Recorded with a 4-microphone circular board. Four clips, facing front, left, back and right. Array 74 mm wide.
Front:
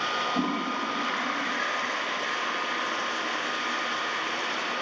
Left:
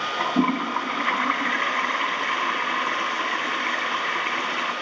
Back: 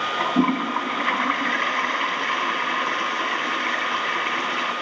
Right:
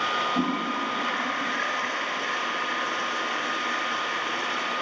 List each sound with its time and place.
0.2 s a toilet flushing: 145° left, 1.7 m